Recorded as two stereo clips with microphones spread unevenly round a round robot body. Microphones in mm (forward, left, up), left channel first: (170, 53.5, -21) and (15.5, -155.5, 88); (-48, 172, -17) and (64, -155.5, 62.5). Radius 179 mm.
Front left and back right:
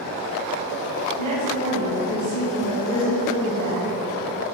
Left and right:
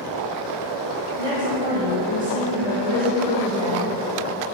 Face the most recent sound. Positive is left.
turn(degrees=-155)